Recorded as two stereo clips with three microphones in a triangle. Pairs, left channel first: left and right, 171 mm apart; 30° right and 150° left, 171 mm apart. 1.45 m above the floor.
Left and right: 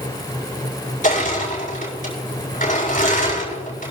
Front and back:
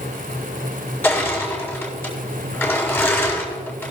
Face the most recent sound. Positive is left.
turn(degrees=50)